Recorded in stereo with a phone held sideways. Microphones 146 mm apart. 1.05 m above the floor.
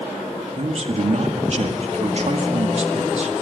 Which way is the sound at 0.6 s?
50° right (ahead or behind).